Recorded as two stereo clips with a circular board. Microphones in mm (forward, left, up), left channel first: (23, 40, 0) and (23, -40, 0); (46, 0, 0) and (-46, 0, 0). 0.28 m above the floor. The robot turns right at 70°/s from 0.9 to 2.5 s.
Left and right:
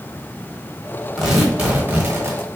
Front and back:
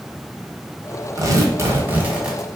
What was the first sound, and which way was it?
Tearing paper, 175° left.